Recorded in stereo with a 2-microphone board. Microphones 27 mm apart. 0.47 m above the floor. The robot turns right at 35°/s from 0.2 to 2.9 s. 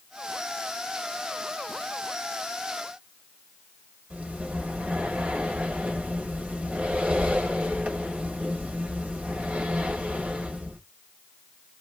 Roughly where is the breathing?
Right.